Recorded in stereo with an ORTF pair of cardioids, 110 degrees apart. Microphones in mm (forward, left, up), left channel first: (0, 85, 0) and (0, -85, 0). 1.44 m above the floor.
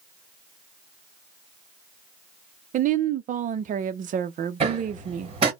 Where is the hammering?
35° right, 2 m.